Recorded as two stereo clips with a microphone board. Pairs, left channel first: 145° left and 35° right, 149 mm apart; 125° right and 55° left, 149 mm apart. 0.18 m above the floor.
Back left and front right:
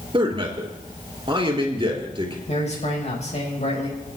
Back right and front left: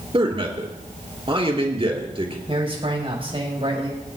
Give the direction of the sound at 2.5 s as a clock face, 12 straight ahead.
8 o'clock.